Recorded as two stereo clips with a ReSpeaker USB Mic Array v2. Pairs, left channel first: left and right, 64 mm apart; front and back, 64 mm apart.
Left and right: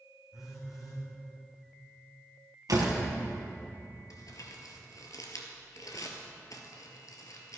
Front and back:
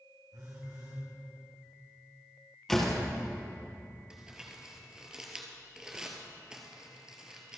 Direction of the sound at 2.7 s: 85° right.